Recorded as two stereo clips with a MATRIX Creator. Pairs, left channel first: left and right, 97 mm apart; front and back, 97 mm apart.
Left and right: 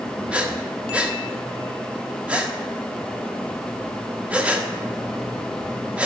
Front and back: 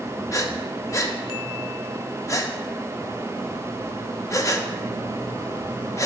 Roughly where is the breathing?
Ahead.